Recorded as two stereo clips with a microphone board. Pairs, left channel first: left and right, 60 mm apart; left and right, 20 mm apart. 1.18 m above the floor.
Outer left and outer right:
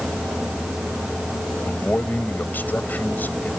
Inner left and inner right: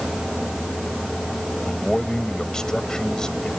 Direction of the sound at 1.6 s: 30° left (ahead or behind).